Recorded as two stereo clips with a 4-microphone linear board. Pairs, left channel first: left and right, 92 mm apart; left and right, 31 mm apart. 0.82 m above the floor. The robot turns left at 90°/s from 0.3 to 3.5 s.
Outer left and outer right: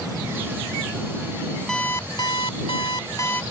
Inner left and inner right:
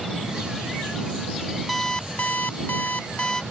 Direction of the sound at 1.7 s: 175° left.